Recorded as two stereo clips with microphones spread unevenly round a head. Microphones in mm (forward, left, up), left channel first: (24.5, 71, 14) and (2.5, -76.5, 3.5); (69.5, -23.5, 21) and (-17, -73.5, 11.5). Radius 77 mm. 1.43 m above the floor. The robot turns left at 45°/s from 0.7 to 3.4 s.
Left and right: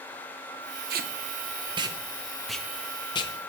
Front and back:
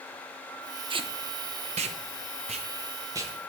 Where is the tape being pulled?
120° right, 0.6 m; by 3.5 s 130° left, 0.6 m.